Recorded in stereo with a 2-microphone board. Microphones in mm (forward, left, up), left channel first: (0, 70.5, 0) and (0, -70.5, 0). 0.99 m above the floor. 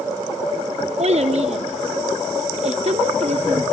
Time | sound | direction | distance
1.0 | a child speaking | 55° right (ahead or behind) | 0.9 m